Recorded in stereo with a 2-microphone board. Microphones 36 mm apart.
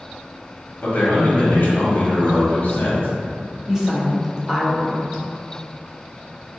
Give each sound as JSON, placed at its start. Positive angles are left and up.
{"t": 0.8, "sound": "a man speaking", "side_deg": 60, "distance_m": 0.9}
{"t": 3.7, "sound": "a woman speaking", "side_deg": -15, "distance_m": 0.7}